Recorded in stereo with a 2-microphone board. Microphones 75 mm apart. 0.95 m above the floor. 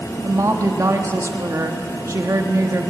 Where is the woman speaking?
45° right (ahead or behind), 1.6 m.